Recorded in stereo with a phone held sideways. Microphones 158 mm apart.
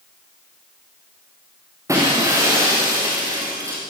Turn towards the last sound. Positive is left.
turn(degrees=-20)  # may be behind; listen again after turning